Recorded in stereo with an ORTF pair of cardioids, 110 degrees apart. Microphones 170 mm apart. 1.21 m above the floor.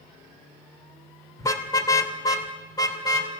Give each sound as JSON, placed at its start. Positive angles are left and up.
{"t": 1.4, "sound": "a car horn", "azimuth_deg": 20, "distance_m": 2.5}